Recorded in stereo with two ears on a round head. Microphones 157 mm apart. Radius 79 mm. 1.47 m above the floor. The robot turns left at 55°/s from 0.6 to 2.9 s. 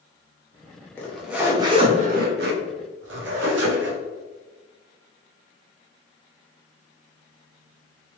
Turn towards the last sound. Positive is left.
turn(degrees=-95)